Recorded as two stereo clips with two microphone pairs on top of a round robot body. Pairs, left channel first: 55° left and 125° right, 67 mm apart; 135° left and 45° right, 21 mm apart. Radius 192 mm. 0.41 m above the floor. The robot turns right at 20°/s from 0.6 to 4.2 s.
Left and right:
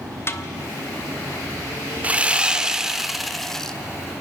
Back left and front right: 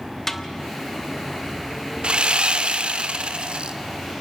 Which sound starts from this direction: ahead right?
Sawing, at 2.0 s.